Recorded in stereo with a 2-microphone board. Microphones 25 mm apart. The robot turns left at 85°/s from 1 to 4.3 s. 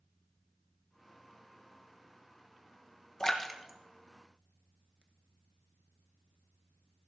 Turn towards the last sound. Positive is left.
turn(degrees=-55)  # may be behind; listen again after turning